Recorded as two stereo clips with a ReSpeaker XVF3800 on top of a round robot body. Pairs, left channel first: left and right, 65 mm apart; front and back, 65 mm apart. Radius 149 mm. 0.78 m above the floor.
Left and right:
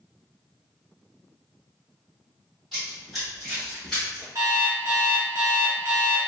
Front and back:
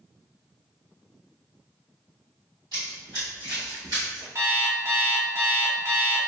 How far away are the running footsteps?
About 1.8 m.